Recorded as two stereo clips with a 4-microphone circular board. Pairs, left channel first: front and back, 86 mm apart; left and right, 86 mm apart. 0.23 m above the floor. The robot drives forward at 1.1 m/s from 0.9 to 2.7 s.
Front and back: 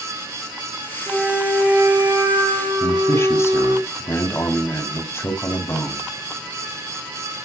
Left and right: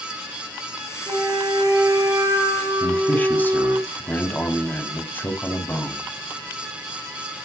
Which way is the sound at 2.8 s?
35° left.